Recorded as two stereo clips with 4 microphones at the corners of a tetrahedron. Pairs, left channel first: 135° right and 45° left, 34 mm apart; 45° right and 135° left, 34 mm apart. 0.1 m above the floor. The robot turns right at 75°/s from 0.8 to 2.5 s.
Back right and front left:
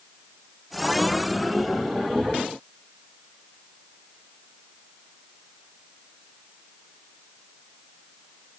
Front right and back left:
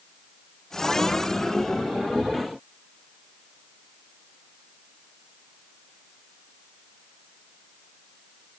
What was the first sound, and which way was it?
Only background noise.